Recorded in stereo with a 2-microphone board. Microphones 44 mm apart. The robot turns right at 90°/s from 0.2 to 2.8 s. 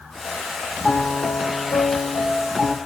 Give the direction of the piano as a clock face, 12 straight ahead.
12 o'clock.